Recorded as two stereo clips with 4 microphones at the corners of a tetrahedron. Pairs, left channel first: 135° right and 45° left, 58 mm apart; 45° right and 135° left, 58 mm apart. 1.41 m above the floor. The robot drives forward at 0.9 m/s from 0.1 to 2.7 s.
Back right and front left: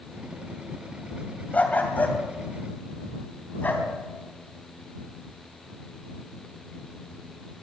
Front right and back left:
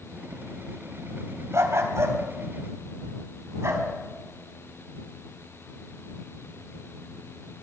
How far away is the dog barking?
About 2.5 m.